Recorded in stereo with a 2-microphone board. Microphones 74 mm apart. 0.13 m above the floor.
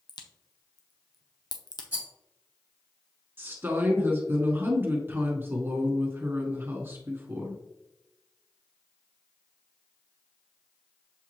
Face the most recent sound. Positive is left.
turn(degrees=-25)  # may be behind; listen again after turning